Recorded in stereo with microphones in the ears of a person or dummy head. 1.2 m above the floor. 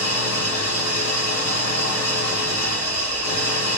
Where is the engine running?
50° left (ahead or behind), 2.5 m.